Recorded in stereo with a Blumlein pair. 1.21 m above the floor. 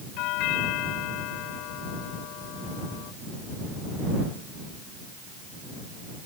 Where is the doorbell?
40° left.